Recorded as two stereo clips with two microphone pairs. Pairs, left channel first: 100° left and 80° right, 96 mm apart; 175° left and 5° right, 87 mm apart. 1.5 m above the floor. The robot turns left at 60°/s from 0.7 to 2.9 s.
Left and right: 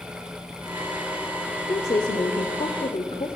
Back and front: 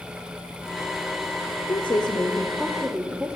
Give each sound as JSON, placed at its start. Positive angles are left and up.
{"t": 1.7, "sound": "a woman speaking", "azimuth_deg": 145, "distance_m": 0.6}